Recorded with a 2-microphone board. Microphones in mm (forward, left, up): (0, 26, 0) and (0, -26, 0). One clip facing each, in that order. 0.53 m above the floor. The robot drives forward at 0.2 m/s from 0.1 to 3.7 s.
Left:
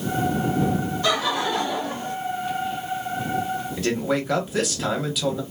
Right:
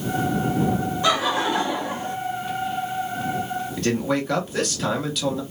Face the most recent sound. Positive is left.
turn(degrees=5)  # may be behind; listen again after turning